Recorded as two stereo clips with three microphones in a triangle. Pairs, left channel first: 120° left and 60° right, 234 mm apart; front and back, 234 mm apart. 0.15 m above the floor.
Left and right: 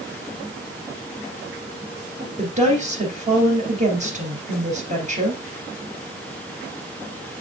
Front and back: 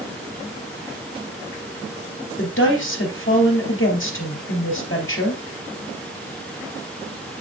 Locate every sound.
2.4 s a woman speaking: 5° right, 3 m